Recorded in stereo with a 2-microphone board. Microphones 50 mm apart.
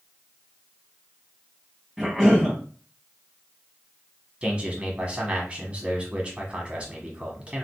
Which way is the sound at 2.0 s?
Centre (ahead or behind).